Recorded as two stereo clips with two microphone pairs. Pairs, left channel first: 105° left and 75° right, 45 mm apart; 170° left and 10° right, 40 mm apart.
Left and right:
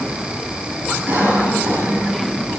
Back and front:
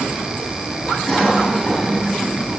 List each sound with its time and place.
1.1 s a cough: 110° right, 6.5 m